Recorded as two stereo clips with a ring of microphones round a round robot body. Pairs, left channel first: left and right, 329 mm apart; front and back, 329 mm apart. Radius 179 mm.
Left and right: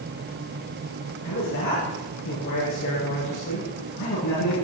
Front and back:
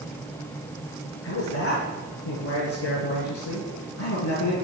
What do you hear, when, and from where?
1.2 s a man speaking: 45° left, 8 m